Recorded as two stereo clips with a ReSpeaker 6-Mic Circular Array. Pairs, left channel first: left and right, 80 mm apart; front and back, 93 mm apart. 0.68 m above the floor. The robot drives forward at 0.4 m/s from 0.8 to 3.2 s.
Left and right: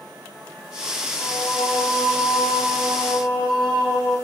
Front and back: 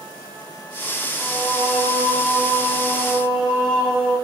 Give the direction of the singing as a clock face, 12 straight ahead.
10 o'clock.